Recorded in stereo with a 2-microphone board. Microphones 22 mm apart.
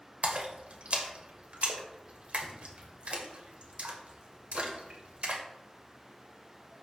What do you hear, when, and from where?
0.2 s a splash: 65° right (ahead or behind), 1.8 m